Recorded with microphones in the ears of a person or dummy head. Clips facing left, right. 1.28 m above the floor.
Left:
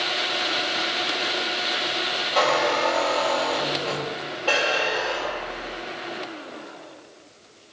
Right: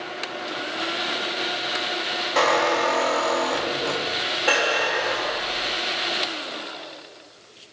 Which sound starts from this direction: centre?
A squeak, at 2.4 s.